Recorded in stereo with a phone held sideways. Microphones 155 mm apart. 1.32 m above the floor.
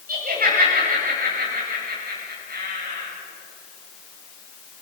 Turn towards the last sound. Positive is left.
turn(degrees=-85)